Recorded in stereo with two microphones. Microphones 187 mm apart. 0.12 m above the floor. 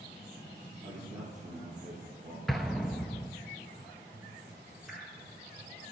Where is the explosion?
Centre (ahead or behind), 0.8 m.